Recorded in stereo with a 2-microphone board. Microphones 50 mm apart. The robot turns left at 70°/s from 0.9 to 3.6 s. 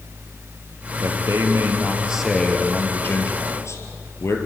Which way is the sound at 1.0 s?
90° right.